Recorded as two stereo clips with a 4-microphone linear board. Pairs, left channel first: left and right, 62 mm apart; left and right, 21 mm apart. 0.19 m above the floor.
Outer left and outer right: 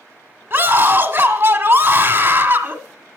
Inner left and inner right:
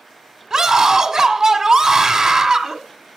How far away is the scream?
About 1.6 m.